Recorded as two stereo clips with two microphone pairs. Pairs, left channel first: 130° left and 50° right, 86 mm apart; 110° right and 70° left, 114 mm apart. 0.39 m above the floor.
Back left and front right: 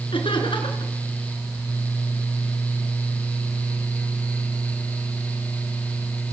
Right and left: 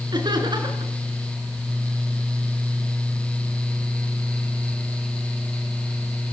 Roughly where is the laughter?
Behind left.